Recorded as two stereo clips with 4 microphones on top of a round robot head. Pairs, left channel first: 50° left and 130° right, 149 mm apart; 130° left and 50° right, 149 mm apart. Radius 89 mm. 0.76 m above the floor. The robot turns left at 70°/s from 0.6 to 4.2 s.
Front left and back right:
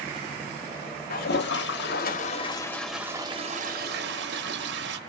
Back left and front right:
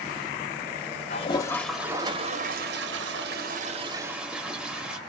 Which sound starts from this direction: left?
A toilet flushing, at 1.1 s.